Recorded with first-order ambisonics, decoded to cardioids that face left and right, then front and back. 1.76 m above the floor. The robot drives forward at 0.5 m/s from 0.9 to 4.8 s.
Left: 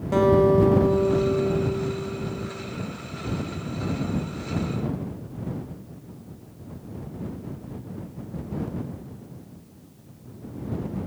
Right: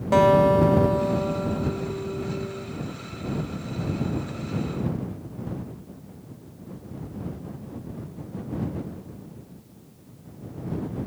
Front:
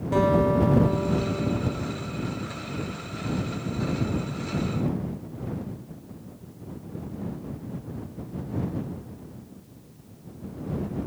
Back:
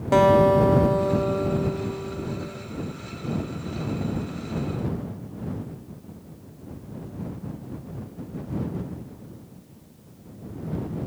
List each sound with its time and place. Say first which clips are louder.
0.1 s a guitar: right 1 dB, back 6 dB; 145° right, 1.2 m; by 2.6 s 165° right, 1.8 m